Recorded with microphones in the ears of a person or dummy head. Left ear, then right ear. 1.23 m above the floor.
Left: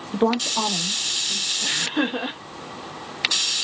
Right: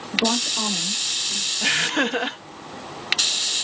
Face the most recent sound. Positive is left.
turn(degrees=-60)  # may be behind; listen again after turning